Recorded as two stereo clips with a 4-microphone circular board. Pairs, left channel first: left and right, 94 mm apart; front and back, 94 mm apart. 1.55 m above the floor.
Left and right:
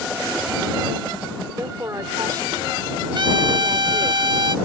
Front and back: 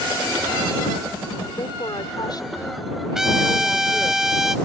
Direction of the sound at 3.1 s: 95° right.